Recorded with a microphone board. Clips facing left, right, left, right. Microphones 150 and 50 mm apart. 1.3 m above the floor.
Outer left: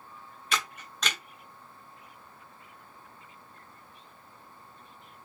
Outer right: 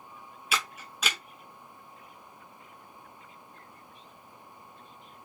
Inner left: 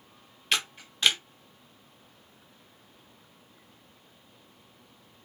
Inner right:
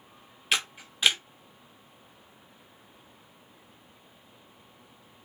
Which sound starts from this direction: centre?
A camera shutter, at 0.5 s.